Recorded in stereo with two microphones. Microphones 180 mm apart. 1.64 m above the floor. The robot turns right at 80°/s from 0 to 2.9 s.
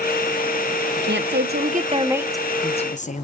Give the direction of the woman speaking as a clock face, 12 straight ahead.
4 o'clock.